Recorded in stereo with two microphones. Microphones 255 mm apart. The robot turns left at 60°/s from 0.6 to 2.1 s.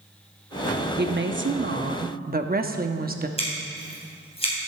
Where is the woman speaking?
60° right, 0.7 m; by 3.3 s 130° right, 0.7 m.